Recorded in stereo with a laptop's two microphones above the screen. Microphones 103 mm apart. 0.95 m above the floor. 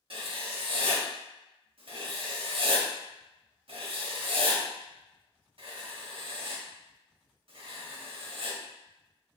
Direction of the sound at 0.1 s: 60° right (ahead or behind).